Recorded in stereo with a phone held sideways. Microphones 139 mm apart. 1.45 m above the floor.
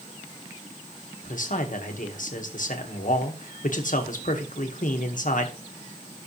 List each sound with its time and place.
1.2 s a man speaking: 70° left (ahead or behind), 1.8 m